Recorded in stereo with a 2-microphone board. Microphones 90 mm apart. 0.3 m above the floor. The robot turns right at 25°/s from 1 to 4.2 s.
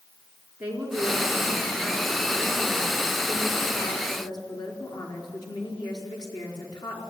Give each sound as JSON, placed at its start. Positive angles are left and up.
{"t": 0.6, "sound": "a woman speaking", "azimuth_deg": -20, "distance_m": 4.5}